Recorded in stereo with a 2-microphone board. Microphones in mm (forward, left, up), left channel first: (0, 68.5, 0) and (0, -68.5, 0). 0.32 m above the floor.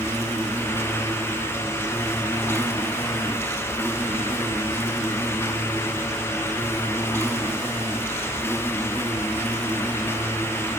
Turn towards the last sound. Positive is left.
turn(degrees=20)  # may be behind; listen again after turning